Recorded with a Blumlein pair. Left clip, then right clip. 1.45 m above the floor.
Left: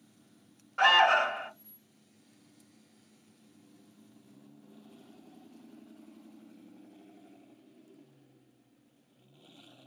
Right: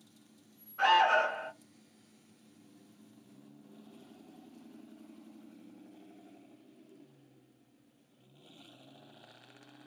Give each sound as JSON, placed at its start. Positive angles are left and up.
{"t": 0.8, "sound": "an alarm", "azimuth_deg": 50, "distance_m": 1.0}